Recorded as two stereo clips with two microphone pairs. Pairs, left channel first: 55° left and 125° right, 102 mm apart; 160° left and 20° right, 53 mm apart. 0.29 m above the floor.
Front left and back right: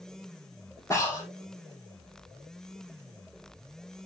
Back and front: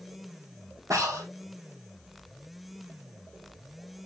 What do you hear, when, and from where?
0.9 s breathing: 5° right, 3 m